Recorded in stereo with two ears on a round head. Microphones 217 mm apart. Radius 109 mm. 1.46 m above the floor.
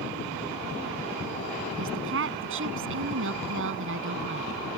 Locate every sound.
1.7 s a woman speaking: 60° right (ahead or behind)